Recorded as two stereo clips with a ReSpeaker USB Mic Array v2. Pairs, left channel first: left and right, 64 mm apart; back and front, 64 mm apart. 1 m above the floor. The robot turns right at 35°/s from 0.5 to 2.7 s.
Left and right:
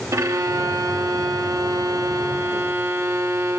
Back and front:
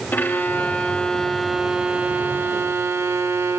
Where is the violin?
120° right, 0.7 m; by 3.6 s 45° right, 0.7 m.